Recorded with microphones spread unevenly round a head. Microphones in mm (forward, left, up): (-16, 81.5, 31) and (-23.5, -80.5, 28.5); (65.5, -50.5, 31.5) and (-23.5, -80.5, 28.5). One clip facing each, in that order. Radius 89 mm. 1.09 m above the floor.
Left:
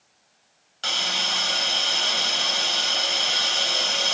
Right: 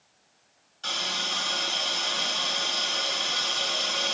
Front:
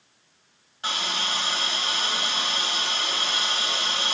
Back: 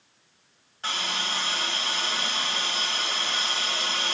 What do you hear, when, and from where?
0.8 s a hiss: 100° left, 2.5 m